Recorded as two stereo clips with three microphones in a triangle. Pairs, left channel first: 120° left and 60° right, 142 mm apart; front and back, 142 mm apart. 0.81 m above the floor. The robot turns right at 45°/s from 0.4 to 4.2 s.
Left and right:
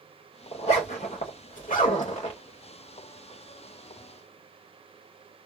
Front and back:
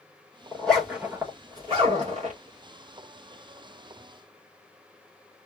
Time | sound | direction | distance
0.5 | a zipper | 75° left | 2 m